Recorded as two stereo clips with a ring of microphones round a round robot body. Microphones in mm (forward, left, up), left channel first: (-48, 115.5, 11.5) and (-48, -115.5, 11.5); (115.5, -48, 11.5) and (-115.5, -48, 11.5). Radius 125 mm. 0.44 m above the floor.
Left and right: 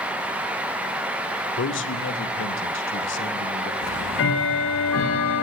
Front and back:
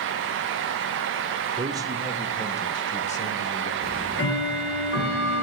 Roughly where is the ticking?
Ahead left.